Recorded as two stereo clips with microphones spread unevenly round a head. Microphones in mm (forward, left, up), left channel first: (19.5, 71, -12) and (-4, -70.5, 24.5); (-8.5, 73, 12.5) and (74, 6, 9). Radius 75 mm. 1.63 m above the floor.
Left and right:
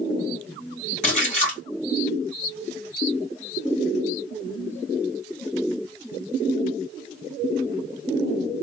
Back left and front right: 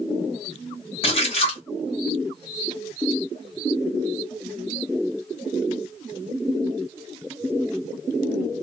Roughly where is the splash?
Behind left.